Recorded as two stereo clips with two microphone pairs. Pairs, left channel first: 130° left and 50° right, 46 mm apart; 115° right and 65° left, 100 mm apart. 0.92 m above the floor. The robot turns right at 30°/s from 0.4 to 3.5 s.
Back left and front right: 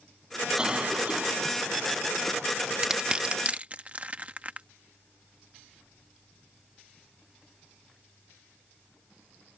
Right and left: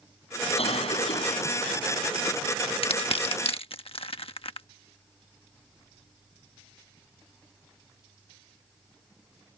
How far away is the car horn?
No car horn in this recording.